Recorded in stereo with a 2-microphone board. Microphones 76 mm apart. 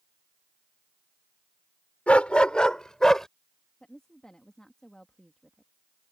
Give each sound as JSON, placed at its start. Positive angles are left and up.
{"t": 2.1, "sound": "a dog barking", "side_deg": 15}
{"t": 3.8, "sound": "a woman speaking", "side_deg": 10}